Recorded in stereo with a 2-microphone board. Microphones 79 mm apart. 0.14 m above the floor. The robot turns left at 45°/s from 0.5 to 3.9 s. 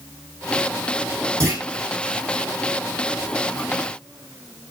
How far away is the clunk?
About 5 m.